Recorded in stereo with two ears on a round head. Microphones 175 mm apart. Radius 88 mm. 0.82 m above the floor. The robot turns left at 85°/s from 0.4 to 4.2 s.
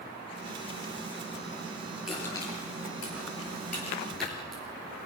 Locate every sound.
2.1 s crushing: 5° right (ahead or behind), 7.5 m; by 4.6 s 5° left (ahead or behind), 7.5 m